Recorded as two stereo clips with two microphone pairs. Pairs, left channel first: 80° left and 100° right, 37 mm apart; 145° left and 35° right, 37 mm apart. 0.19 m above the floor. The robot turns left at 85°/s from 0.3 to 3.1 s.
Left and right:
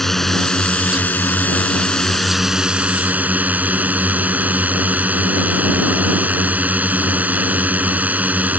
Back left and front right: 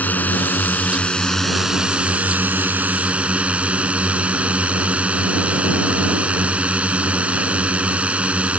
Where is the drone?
155° left; by 8.6 s 80° right.